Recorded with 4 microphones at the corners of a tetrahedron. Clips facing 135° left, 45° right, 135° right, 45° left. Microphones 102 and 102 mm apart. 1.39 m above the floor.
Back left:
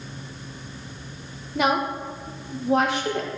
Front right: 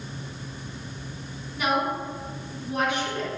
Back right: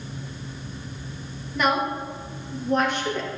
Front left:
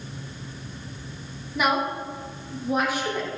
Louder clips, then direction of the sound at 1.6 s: Back left 3 dB, back right 1 dB; 125° left.